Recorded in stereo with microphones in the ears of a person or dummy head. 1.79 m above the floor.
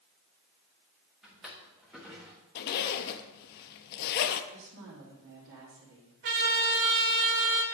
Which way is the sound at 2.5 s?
50° left (ahead or behind).